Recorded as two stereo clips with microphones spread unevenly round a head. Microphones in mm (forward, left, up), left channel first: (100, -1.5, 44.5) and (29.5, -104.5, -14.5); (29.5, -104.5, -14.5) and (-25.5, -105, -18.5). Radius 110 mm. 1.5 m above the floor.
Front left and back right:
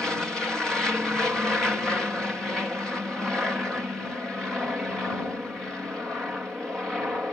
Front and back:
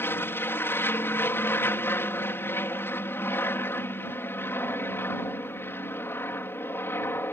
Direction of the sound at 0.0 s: 40° right.